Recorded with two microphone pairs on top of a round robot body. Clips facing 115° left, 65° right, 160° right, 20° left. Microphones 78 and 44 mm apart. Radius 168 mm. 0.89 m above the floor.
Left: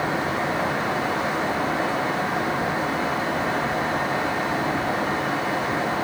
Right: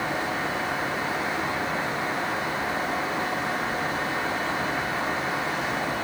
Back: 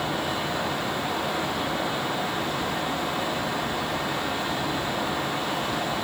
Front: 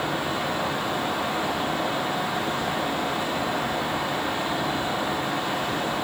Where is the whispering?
No whispering in this recording.